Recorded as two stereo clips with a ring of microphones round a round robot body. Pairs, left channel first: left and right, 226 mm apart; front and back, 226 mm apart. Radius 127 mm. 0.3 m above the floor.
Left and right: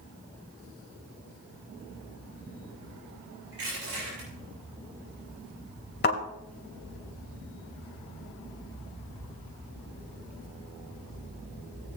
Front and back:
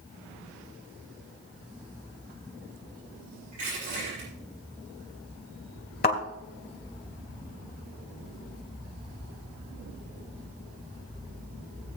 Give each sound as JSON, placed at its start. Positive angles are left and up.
{"t": 3.5, "sound": "crushing", "azimuth_deg": -120, "distance_m": 6.5}
{"t": 6.0, "sound": "a thud", "azimuth_deg": 45, "distance_m": 2.5}